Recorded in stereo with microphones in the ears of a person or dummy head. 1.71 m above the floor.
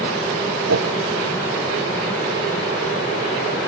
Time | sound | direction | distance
0.7 | a whoosh | 85° right | 0.7 m